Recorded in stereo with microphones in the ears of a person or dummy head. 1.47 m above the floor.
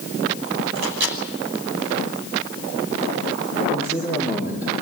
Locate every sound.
0.8 s a microwave: 80° right, 5 m
3.7 s a man speaking: 10° right (ahead or behind), 5.5 m